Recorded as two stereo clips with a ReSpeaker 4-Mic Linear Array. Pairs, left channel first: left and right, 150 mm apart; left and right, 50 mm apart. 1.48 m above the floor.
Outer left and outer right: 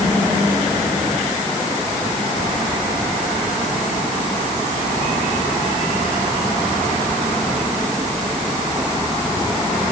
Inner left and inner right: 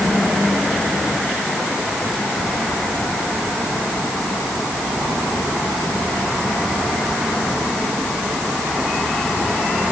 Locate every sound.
Only background noise.